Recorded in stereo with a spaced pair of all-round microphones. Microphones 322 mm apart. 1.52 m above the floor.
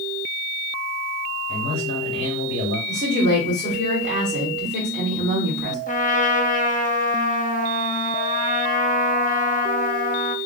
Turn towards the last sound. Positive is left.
turn(degrees=25)  # may be behind; listen again after turning